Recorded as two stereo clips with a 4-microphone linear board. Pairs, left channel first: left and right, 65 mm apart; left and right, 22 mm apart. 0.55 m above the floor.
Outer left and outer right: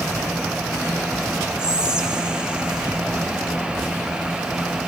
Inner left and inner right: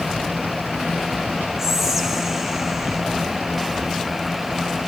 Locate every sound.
1.6 s whispering: 15° right (ahead or behind), 0.7 m